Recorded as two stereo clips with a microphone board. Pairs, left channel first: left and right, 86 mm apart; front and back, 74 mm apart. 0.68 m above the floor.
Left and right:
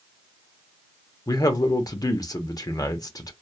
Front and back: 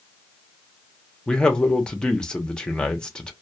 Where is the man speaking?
75° left, 0.7 m.